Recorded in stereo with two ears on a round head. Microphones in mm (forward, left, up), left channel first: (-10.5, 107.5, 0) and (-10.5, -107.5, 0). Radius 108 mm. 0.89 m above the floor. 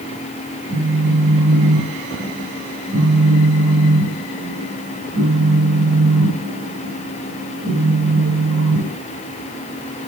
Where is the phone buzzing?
40° right (ahead or behind), 4.5 m.